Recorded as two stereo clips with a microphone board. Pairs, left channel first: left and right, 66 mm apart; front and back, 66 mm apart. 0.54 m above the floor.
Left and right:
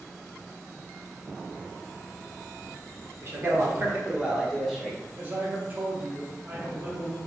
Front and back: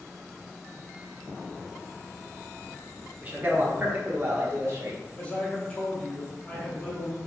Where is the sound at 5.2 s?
55° right, 0.8 m.